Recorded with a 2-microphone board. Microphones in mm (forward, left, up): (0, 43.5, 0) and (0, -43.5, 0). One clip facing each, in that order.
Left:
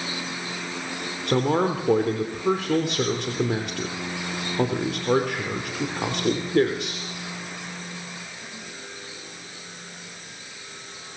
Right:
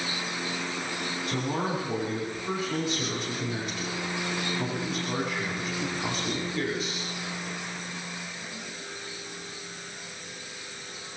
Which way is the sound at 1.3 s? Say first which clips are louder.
Left 9 dB; 65° left (ahead or behind).